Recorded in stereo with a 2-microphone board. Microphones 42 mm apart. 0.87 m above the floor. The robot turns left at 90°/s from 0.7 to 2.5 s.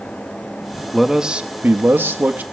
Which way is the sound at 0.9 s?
5° left.